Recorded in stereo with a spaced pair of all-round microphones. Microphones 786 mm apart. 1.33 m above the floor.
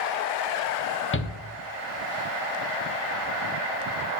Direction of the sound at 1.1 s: 15° left (ahead or behind).